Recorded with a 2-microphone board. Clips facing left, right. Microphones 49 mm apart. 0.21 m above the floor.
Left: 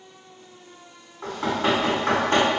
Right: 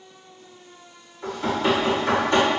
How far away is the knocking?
About 1.7 m.